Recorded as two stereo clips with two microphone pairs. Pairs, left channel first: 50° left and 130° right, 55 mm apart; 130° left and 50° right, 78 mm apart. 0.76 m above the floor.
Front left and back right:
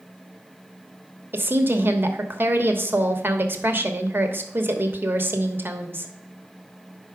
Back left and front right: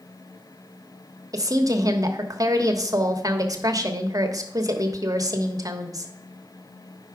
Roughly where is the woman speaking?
Right.